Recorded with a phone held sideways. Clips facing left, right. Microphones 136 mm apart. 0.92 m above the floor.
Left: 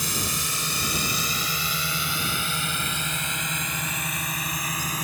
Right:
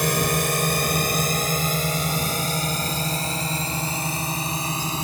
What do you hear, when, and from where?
0.0 s a drone: 65° right (ahead or behind); by 5.0 s 25° right (ahead or behind)